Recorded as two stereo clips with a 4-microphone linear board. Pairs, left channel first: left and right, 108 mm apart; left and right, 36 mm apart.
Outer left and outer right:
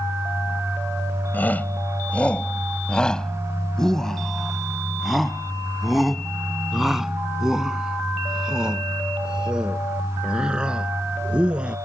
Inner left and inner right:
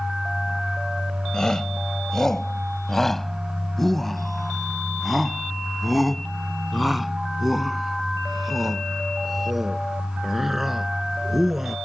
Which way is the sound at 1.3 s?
15° left (ahead or behind).